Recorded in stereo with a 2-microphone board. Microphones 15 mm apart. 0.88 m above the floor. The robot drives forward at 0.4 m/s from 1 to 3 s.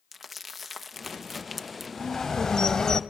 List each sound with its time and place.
0.1 s crumpling: 10° right (ahead or behind), 0.9 m
2.0 s a bird: 40° left (ahead or behind), 1.9 m; by 3.0 s 50° left (ahead or behind), 1.6 m